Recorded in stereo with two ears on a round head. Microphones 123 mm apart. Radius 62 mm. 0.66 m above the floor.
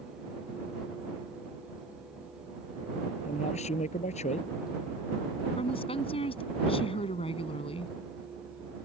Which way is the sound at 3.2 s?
50° left (ahead or behind).